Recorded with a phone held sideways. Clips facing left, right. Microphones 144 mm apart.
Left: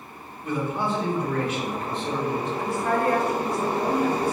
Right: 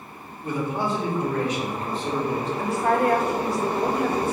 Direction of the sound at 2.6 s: 85° right.